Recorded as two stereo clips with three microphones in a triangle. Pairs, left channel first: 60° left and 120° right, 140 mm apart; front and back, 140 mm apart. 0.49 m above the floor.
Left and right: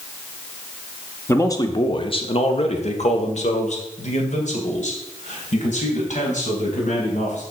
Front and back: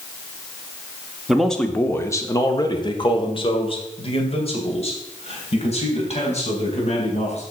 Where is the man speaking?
95° left, 0.8 m; by 7.4 s 35° left, 3.5 m.